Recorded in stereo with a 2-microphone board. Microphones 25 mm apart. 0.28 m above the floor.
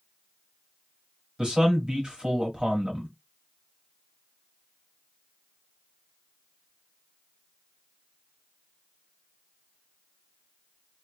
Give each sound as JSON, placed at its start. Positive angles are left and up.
{"t": 1.4, "sound": "a man speaking", "side_deg": -35, "distance_m": 1.3}